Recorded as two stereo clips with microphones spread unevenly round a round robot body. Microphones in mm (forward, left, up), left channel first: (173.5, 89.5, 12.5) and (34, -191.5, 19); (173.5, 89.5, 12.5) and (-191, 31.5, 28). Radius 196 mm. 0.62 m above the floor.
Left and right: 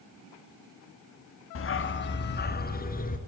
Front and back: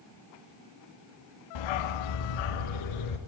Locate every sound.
1.6 s a dog barking: 15° left, 1.3 m; by 3.2 s straight ahead, 2.5 m